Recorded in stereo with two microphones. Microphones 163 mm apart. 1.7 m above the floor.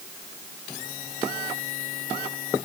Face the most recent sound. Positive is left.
No sound to turn to.